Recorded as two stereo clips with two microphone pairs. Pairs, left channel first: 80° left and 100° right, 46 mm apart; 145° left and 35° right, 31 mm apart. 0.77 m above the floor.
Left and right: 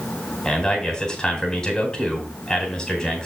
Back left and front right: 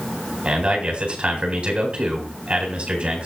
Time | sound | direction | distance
0.5 | a man speaking | 10° left | 4 m